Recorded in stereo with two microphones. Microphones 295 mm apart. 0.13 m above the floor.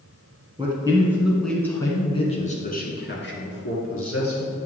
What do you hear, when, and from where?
0.6 s a man speaking: 15° right (ahead or behind), 1.8 m; by 4.5 s 55° left (ahead or behind), 2.5 m